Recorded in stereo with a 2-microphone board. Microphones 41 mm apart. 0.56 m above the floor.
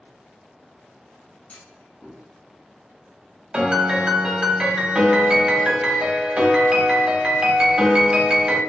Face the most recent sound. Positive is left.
turn(degrees=-20)  # may be behind; listen again after turning